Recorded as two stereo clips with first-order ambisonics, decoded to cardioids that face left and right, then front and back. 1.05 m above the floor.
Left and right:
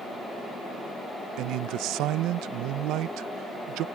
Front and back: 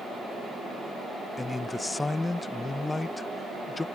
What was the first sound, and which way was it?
A man speaking, 80° right.